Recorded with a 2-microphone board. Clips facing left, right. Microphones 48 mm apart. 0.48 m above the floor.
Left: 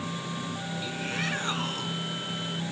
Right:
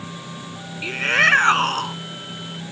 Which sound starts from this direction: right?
A shout, at 0.8 s.